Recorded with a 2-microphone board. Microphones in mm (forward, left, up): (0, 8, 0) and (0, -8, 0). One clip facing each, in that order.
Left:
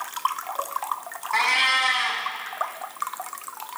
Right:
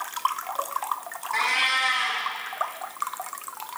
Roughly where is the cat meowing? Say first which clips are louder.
Left 3 dB; left.